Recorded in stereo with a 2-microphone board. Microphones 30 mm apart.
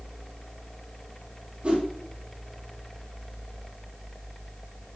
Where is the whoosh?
40° right (ahead or behind), 0.8 m.